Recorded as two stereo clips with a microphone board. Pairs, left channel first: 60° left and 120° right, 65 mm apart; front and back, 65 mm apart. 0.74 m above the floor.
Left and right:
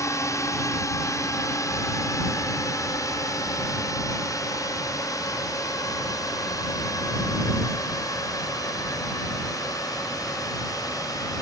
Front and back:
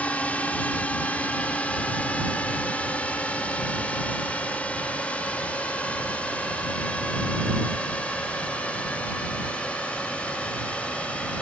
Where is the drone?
65° left; by 11.4 s 70° left.